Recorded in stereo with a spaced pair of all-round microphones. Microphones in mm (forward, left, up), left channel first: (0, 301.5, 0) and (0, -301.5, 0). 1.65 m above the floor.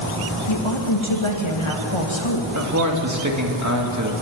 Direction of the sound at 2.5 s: 30° right (ahead or behind).